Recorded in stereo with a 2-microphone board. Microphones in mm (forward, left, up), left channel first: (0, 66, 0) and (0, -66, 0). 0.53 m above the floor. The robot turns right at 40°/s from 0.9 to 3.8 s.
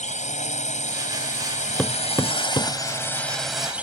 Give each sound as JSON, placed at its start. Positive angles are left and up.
{"t": 0.0, "sound": "a drone", "azimuth_deg": 75}
{"t": 1.8, "sound": "hammering", "side_deg": 5}